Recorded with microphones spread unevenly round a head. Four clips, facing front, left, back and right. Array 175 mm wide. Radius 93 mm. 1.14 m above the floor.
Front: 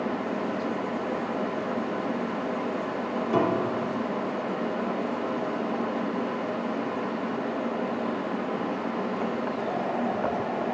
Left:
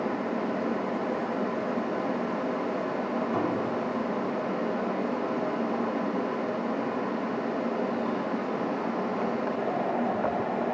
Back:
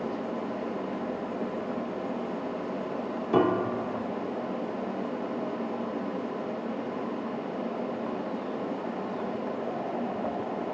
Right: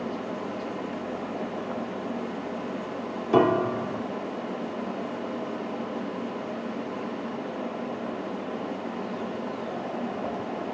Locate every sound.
3.3 s a piano: 105° right, 0.8 m